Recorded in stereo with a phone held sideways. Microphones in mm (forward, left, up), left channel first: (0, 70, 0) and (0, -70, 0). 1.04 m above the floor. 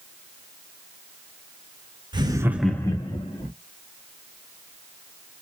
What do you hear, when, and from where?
2.1 s laughter: 35° right (ahead or behind), 0.9 m; by 3.5 s 45° left (ahead or behind), 1.1 m